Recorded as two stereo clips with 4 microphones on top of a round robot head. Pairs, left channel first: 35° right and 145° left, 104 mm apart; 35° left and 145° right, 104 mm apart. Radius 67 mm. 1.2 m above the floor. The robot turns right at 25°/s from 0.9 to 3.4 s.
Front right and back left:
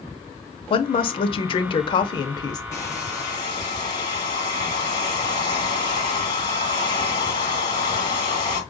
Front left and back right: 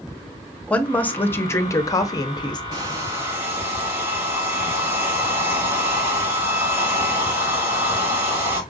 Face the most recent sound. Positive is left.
turn(degrees=-80)